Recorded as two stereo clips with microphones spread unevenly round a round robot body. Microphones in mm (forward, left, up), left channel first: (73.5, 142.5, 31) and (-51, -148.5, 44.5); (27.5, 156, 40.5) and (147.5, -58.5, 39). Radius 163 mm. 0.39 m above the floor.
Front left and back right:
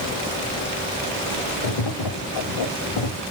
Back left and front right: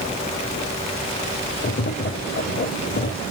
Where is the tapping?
70° left, 0.7 m.